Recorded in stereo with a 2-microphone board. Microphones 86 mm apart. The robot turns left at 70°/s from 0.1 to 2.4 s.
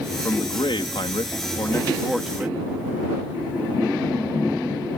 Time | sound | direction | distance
0.2 | a man speaking | 135° left | ?